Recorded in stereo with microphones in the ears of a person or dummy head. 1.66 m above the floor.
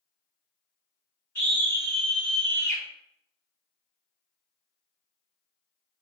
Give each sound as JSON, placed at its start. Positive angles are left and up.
{"t": 1.4, "sound": "a scream", "side_deg": 5, "distance_m": 2.0}